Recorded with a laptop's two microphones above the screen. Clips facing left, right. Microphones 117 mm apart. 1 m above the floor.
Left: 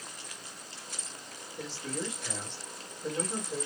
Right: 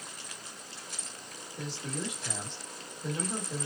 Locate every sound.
1.6 s a man speaking: 15° right (ahead or behind), 1.6 m